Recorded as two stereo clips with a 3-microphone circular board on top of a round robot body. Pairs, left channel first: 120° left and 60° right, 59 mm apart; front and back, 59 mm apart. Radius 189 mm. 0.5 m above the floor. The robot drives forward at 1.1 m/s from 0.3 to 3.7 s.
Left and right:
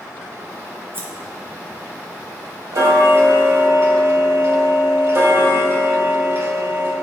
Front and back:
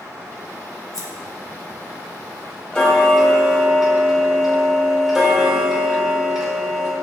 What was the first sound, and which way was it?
Scissors, 10° right.